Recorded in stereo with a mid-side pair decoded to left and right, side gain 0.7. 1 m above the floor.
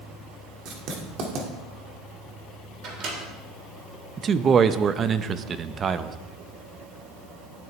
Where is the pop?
I don't hear a pop.